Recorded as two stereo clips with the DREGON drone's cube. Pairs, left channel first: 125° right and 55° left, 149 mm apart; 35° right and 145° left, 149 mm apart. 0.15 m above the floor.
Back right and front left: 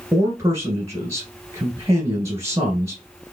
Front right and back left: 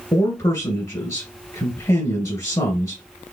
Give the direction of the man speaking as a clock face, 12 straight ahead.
12 o'clock.